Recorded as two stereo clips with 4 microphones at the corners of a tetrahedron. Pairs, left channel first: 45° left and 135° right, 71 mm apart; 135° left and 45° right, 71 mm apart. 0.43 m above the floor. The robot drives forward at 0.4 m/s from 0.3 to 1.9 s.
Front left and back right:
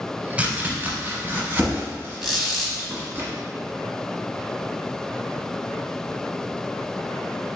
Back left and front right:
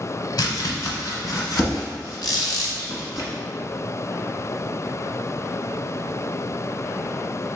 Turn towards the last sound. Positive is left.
turn(degrees=140)